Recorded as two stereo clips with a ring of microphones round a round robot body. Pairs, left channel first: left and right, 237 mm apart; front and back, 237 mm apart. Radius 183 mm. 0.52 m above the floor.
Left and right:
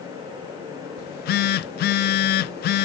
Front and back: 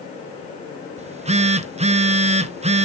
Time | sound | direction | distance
1.0 | a phone buzzing | 120° left | 0.6 m